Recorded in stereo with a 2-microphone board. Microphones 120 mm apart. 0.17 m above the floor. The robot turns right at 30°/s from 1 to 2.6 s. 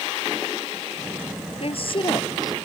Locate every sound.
1.6 s a woman speaking: 55° left (ahead or behind); by 2.5 s 30° left (ahead or behind)